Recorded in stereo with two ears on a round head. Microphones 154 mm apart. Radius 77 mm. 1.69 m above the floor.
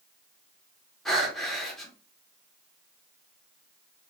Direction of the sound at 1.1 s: Centre (ahead or behind).